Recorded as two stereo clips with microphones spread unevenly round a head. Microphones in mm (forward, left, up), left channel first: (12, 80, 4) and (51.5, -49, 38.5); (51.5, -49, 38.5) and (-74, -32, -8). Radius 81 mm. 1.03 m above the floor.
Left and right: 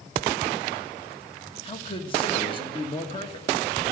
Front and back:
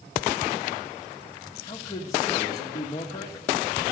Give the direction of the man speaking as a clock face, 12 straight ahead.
10 o'clock.